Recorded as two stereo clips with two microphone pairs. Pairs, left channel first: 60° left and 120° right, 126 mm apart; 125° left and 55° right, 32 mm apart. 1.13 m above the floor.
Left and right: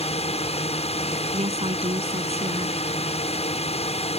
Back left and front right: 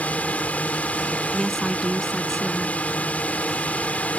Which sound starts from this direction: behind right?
A woman speaking, at 1.3 s.